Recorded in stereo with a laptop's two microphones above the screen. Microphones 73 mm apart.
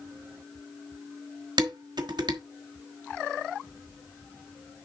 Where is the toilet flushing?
No toilet flushing in this recording.